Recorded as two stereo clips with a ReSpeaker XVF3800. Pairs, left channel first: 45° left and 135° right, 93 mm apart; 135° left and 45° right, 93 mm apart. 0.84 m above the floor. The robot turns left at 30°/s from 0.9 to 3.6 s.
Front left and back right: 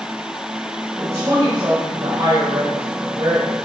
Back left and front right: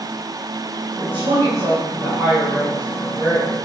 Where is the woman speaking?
75° right, 3 m; by 3.5 s 150° right, 3 m.